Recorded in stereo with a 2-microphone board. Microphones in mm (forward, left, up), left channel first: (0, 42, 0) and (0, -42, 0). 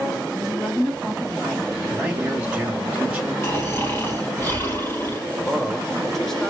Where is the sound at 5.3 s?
5° left (ahead or behind), 1.2 m.